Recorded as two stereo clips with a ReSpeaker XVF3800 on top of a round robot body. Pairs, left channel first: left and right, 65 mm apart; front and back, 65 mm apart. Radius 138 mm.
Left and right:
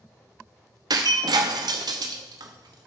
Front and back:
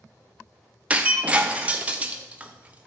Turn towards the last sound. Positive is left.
turn(degrees=-110)